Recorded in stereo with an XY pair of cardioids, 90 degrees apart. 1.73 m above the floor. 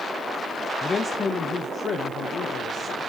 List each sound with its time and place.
0.8 s a man speaking: 30° left, 0.6 m; by 3.0 s 70° left, 1.6 m